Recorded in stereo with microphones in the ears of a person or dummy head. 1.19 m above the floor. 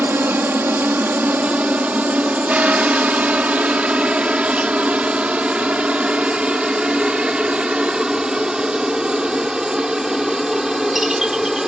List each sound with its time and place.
0.0 s a helicopter: 10° right (ahead or behind); by 11.7 s centre (ahead or behind)